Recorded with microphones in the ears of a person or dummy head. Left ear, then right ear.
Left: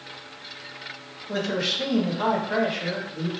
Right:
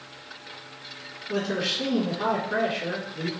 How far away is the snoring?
I don't hear snoring.